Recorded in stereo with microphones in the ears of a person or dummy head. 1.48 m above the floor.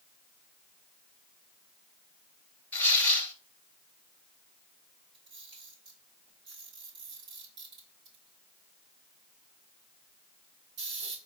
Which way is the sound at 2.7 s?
10° left (ahead or behind).